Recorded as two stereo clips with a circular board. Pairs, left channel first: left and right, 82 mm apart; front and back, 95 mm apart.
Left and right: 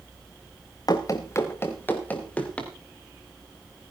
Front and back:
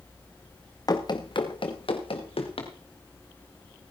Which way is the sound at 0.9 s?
50° left.